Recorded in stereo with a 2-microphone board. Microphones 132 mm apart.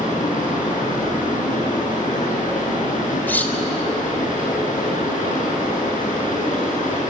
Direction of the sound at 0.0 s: 75° left (ahead or behind).